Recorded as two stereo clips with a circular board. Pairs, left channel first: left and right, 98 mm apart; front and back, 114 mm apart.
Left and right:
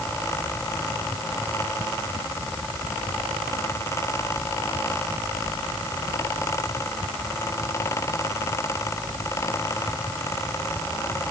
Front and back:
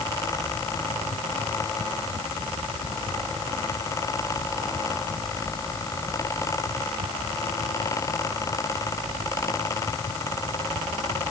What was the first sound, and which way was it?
Only background noise.